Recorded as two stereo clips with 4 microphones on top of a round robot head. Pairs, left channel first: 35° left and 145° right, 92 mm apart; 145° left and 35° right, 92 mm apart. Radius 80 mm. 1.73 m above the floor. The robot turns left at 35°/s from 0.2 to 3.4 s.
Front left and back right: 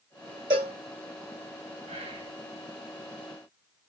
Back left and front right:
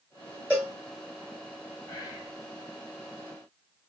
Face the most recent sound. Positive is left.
turn(degrees=155)